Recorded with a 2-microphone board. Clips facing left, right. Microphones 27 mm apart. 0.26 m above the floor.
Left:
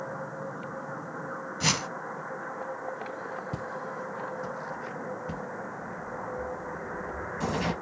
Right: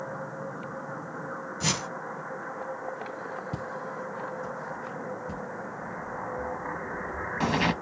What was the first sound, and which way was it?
A whoosh, 25° left (ahead or behind).